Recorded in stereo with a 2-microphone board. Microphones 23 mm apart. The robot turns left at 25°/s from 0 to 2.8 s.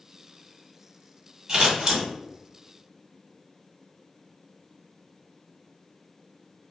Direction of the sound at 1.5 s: 30° right (ahead or behind).